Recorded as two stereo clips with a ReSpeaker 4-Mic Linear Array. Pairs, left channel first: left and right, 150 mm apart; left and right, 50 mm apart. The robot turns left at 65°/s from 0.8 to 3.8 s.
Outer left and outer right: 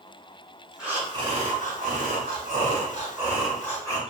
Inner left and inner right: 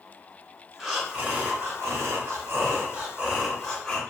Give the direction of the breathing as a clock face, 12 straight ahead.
12 o'clock.